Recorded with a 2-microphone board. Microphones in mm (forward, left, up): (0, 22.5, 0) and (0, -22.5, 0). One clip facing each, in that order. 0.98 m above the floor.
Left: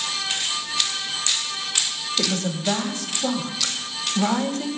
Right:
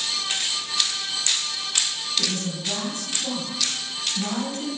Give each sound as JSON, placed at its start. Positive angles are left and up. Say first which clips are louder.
{"t": 2.2, "sound": "a woman speaking", "louder": "left 5 dB", "side_deg": 75, "distance_m": 1.4}